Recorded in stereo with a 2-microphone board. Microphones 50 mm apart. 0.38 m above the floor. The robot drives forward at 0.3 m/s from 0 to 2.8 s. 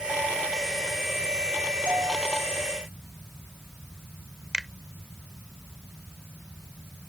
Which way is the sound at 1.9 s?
50° right (ahead or behind).